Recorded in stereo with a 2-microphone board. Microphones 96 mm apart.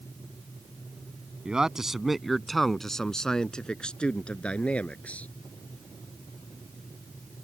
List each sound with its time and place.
1.4 s a man speaking: 10° right (ahead or behind); by 5.3 s 15° left (ahead or behind)